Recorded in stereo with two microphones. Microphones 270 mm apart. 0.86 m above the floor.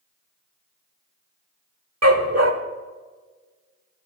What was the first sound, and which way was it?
A dog barking, 65° right (ahead or behind).